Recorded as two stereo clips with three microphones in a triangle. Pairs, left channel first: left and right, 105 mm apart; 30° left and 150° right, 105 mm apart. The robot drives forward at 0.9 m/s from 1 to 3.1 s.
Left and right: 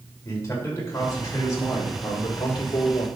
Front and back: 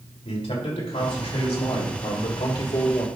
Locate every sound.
0.2 s a man speaking: 30° left, 3 m; by 3.1 s 60° left, 1.9 m